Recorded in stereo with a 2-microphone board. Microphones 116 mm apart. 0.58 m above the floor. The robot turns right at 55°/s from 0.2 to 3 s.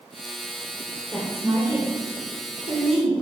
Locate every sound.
1.1 s a woman speaking: 5° right (ahead or behind), 2 m; by 3.1 s 60° right (ahead or behind), 2 m